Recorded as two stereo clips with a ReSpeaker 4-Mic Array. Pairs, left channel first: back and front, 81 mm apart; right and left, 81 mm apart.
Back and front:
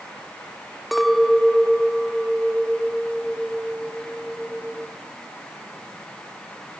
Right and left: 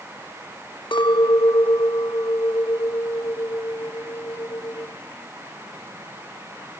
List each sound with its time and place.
0.9 s a clink: 90° right, 1.0 m